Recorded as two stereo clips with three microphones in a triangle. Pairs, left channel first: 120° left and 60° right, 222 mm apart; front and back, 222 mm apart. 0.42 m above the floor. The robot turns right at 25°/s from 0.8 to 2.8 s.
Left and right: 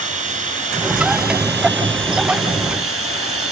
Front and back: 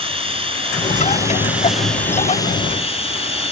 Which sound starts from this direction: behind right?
Running water, at 0.0 s.